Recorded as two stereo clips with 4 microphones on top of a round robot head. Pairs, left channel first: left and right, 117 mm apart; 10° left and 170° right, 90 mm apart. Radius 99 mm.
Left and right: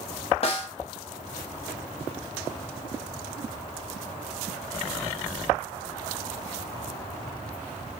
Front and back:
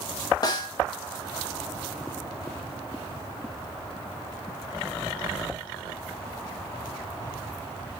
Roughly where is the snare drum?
Ahead left.